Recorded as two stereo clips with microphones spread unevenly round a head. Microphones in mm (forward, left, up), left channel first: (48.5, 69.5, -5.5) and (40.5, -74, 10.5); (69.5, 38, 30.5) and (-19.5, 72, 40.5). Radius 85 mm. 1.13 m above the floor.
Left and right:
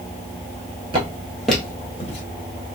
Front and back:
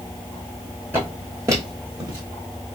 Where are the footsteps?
135° right, 1.5 m; by 2.2 s 120° left, 1.5 m.